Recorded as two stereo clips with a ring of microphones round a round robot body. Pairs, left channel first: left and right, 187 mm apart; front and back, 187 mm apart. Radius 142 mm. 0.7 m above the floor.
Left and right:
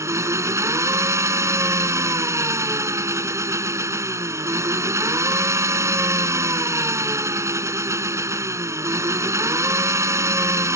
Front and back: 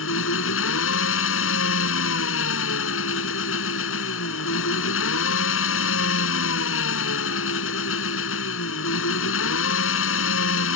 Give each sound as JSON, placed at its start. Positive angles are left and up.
{"t": 0.0, "sound": "an engine running", "azimuth_deg": -15}